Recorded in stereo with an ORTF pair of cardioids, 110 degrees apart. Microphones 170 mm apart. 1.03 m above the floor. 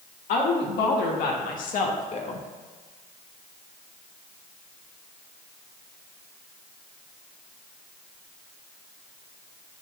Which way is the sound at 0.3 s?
70° left.